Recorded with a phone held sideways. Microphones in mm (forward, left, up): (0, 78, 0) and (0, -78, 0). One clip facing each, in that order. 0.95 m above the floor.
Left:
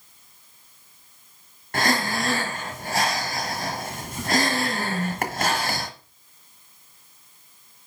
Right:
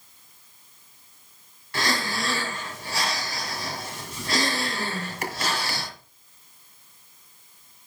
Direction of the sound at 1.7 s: 55° left (ahead or behind).